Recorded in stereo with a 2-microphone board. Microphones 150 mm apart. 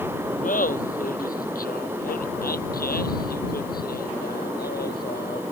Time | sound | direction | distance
0.4 | laughter | 65° left (ahead or behind) | ?